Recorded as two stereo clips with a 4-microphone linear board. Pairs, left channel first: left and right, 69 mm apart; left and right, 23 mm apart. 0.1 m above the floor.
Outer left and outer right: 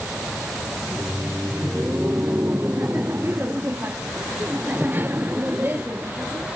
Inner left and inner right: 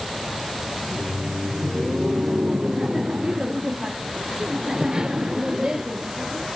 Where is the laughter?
30° right (ahead or behind).